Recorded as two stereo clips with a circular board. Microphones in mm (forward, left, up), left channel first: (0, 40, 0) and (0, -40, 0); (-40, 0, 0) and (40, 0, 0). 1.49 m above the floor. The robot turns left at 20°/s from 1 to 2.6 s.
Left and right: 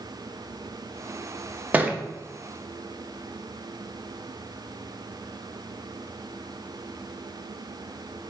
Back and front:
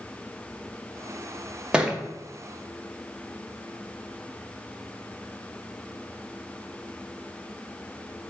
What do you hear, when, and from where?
1.7 s a thud: 60° right, 0.8 m; by 2.0 s 65° right, 0.8 m